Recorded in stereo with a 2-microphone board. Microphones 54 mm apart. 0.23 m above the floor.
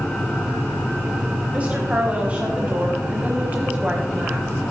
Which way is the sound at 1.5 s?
25° right (ahead or behind).